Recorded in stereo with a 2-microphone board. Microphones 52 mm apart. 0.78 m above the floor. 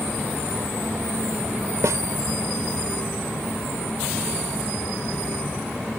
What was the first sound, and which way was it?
A snare drum, 75° right (ahead or behind).